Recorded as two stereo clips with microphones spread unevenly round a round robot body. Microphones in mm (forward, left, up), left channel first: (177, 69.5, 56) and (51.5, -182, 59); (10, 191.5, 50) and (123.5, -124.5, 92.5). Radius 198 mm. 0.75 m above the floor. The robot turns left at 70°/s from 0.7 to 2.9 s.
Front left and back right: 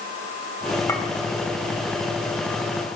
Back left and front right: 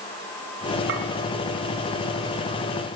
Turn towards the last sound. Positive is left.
turn(degrees=-155)